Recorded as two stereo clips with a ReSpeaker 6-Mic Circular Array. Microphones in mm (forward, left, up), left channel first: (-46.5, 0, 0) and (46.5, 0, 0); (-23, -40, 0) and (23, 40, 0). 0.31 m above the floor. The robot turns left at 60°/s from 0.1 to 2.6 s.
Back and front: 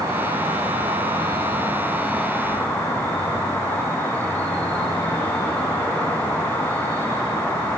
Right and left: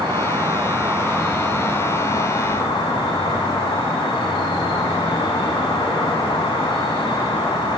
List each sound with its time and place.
0.0 s an insect: 40° left, 1.0 m; by 7.8 s 110° right, 1.0 m